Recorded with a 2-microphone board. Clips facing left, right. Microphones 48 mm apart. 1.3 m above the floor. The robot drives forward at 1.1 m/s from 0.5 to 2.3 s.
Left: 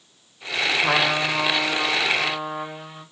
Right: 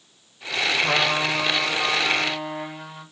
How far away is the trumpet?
About 0.9 m.